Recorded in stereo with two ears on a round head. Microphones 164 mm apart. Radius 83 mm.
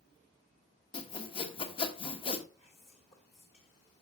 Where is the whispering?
35° left (ahead or behind), 1.5 m.